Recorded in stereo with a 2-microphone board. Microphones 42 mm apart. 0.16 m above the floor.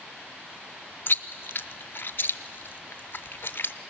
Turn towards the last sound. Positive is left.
turn(degrees=55)  # may be behind; listen again after turning